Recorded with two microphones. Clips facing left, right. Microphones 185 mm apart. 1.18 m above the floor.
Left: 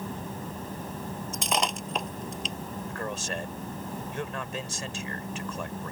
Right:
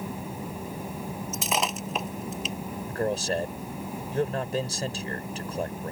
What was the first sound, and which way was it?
Breaking glass, centre (ahead or behind).